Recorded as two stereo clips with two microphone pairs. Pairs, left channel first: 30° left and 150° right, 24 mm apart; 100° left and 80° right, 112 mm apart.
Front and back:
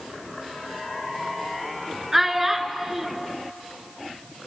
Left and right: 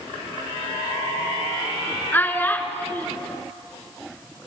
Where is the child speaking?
150° left, 1.0 m.